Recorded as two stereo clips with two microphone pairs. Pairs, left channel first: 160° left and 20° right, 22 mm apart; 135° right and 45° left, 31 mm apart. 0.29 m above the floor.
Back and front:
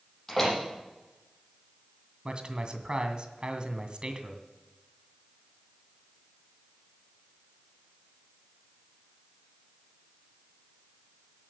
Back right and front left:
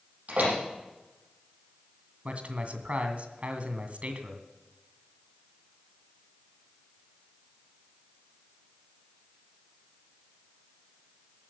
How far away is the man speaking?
About 2 m.